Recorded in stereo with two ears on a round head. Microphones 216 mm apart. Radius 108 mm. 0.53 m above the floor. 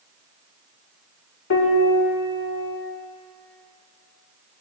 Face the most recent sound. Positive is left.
turn(degrees=55)  # may be behind; listen again after turning